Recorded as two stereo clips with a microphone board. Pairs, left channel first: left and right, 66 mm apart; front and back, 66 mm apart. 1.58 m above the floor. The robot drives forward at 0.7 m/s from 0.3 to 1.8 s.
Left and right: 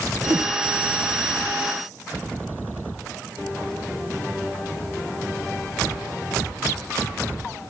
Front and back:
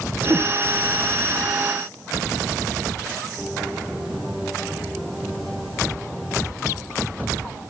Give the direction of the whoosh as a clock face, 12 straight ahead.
4 o'clock.